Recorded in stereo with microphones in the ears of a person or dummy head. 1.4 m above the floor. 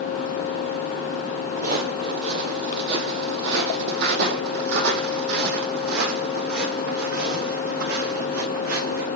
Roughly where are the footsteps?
Right.